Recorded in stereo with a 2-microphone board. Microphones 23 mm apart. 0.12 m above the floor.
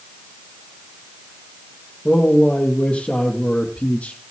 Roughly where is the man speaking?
Left.